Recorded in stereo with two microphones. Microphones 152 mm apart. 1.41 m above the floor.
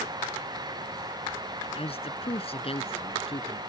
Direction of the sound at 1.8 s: 40° left (ahead or behind).